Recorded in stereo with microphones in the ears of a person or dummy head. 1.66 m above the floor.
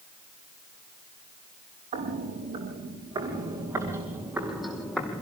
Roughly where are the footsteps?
Right.